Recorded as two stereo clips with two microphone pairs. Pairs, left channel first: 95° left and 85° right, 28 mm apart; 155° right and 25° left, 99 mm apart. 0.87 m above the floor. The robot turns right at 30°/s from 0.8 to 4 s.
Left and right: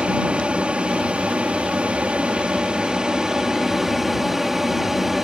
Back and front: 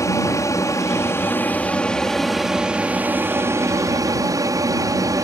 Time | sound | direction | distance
0.0 | an aircraft | 110° right | ?